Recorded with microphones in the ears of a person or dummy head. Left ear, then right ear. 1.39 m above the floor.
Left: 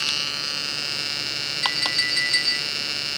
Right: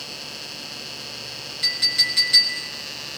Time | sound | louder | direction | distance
1.6 | a clink | right 3 dB | centre (ahead or behind) | 4 m